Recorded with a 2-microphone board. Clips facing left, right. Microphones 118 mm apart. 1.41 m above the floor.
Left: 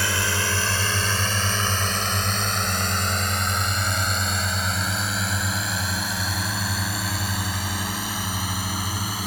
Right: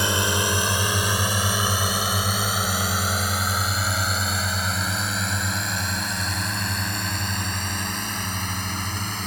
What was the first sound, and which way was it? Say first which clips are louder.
A drone: right 3 dB; 20° right (ahead or behind).